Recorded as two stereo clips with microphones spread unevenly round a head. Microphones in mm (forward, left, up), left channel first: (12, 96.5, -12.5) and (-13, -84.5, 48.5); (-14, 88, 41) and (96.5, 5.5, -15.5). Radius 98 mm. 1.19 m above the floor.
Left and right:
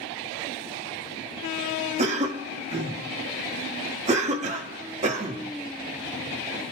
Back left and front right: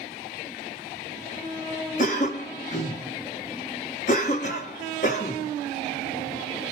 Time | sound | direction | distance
2.0 | a cough | 160° right | 1.2 m